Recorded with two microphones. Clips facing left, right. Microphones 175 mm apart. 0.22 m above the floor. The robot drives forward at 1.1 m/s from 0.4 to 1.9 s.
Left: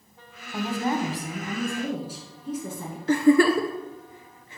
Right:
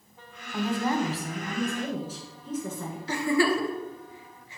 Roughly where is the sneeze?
I don't hear a sneeze.